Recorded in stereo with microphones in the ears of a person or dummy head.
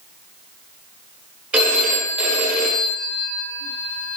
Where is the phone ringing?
10° right (ahead or behind), 0.5 m.